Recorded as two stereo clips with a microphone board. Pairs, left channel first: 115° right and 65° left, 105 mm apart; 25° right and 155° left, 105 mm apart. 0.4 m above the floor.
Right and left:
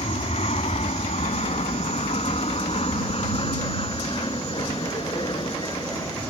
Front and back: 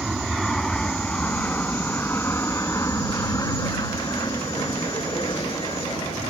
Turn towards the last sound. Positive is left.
turn(degrees=-65)